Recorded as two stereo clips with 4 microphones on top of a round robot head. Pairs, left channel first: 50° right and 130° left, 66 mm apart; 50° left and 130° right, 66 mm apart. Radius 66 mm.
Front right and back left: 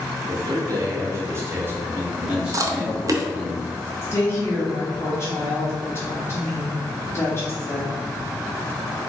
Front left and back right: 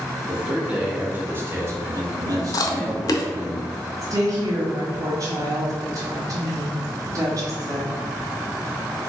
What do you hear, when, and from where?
0.3 s a man speaking: 150° left, 1.6 m; by 3.5 s 140° right, 2 m
2.5 s chewing: 90° left, 0.6 m
4.0 s a woman speaking: 100° right, 1.4 m